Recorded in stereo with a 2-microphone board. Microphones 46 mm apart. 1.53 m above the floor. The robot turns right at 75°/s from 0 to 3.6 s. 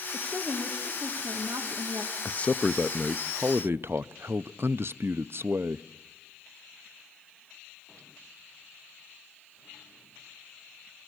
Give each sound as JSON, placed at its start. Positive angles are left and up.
{"t": 0.1, "sound": "a woman speaking", "azimuth_deg": 150, "distance_m": 1.8}
{"t": 2.2, "sound": "a man speaking", "azimuth_deg": 135, "distance_m": 0.5}